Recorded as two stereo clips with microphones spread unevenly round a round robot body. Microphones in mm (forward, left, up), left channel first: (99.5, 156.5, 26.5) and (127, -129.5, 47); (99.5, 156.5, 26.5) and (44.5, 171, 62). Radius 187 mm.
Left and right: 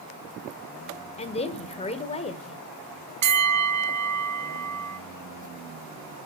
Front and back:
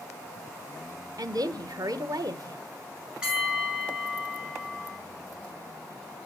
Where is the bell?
90° right, 1.5 m.